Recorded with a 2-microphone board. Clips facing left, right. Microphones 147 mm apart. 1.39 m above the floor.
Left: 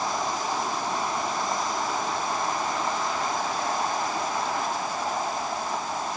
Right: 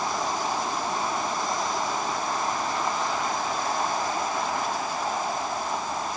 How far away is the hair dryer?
No hair dryer in this recording.